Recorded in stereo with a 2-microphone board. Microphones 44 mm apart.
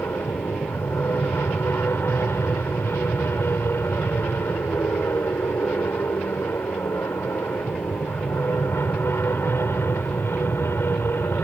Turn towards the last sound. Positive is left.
turn(degrees=60)  # may be behind; listen again after turning